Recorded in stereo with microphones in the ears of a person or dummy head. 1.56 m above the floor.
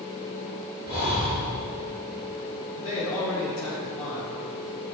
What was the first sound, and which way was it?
Breathing, 20° right (ahead or behind).